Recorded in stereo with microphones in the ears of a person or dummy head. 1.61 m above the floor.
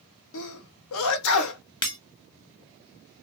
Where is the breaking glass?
25° left (ahead or behind), 0.9 m.